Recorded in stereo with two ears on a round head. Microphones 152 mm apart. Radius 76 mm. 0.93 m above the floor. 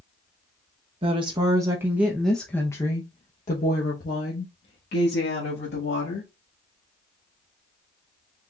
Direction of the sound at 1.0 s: 35° right (ahead or behind).